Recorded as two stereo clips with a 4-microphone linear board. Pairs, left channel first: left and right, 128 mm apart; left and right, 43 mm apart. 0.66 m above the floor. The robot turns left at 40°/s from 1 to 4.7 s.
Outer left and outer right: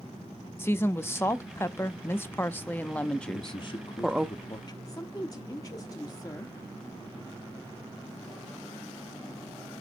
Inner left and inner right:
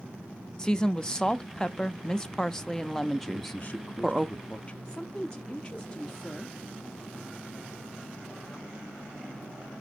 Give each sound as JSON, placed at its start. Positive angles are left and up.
{"t": 0.6, "sound": "a woman speaking", "side_deg": 20, "distance_m": 0.6}
{"t": 3.3, "sound": "a man speaking", "azimuth_deg": 110, "distance_m": 0.7}
{"t": 4.8, "sound": "a woman speaking", "side_deg": 30, "distance_m": 0.8}